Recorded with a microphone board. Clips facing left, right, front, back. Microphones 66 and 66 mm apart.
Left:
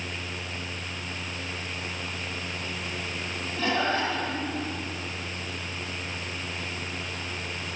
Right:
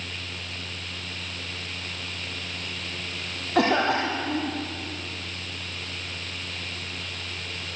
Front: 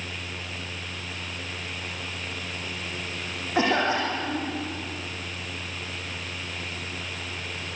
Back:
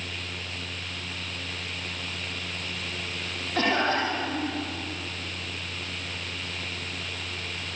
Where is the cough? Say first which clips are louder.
Right 5 dB, front 1 dB; 75° right, 5 m.